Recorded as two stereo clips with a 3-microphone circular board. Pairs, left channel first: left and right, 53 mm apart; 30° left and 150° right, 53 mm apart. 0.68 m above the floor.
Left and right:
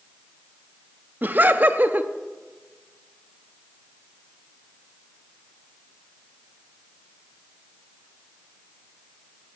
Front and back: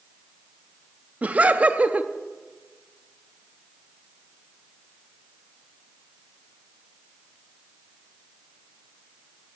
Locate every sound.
1.2 s laughter: 110° right, 0.8 m